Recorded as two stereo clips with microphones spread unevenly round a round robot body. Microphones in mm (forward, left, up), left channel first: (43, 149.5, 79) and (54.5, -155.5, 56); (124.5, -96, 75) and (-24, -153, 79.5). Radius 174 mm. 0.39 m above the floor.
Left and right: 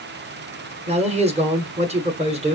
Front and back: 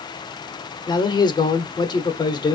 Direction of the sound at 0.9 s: 30° right.